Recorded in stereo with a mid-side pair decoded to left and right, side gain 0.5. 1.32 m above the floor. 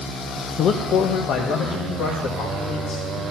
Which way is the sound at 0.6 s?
60° left.